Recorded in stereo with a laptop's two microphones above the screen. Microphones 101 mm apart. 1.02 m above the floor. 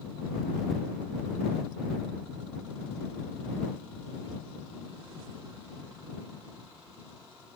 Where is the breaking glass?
I don't hear breaking glass.